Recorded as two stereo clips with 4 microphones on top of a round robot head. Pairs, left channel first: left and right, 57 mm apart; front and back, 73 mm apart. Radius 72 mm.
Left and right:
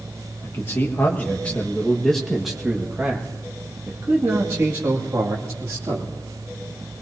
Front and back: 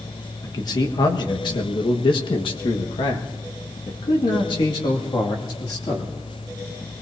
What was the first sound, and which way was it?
A man speaking, 35° left.